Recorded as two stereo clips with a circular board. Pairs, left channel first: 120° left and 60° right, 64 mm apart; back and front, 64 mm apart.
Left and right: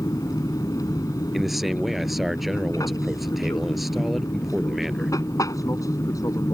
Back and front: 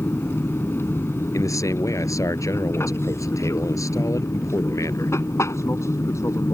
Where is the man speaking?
150° right.